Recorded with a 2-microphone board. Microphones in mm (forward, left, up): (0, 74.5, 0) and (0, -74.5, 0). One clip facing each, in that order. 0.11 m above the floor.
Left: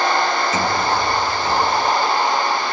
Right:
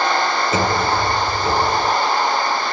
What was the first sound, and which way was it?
A sliding door, 30° right (ahead or behind).